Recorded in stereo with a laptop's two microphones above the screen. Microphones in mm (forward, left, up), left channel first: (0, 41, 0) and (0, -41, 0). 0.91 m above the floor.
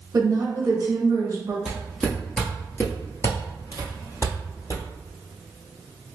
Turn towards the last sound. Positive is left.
turn(degrees=45)  # may be behind; listen again after turning